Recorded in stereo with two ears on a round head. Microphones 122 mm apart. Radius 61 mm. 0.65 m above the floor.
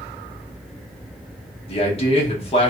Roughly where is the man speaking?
Left.